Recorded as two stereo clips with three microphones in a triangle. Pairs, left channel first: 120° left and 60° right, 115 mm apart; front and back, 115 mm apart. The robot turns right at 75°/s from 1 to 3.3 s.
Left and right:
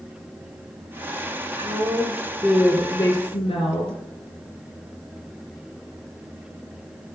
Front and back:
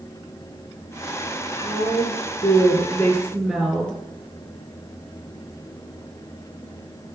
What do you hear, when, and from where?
1.6 s a woman speaking: 40° right, 2.5 m; by 4.0 s 90° left, 2.5 m